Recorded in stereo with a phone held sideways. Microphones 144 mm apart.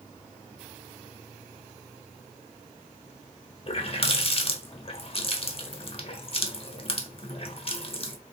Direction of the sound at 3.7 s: 45° left (ahead or behind).